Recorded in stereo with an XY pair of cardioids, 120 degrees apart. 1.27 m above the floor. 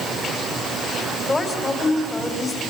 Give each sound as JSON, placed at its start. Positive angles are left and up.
{"t": 1.3, "sound": "a woman speaking", "azimuth_deg": 25, "distance_m": 4.0}